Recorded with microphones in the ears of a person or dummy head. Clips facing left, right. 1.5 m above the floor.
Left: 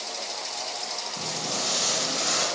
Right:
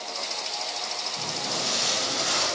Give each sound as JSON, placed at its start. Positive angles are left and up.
{"t": 1.2, "sound": "footsteps", "side_deg": 30, "distance_m": 1.9}